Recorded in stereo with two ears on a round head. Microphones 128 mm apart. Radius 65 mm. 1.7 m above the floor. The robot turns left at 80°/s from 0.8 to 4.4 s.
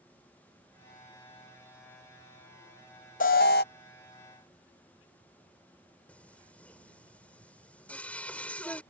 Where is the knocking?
I don't hear knocking.